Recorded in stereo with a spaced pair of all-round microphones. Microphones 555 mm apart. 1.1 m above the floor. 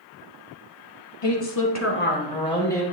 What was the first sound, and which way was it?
A woman speaking, 50° left (ahead or behind).